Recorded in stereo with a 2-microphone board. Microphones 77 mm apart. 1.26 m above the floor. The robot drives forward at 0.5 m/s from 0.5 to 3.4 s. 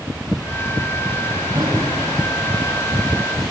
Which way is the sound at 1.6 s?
50° right (ahead or behind).